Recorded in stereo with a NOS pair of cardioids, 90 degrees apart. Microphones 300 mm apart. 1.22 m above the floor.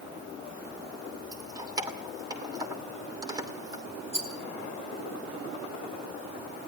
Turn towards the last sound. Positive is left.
turn(degrees=-20)